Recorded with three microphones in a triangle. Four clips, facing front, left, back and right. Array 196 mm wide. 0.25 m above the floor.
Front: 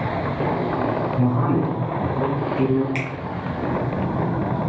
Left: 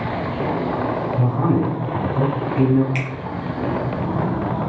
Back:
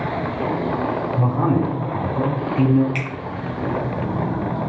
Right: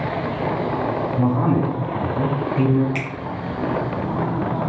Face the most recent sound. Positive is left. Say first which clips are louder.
# even, even
turn(degrees=-35)